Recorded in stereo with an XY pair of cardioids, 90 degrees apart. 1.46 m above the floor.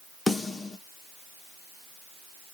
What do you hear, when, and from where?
0.3 s a snare drum: 20° left, 1.1 m